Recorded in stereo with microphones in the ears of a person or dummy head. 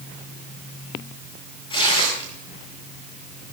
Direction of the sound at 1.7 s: 30° left (ahead or behind).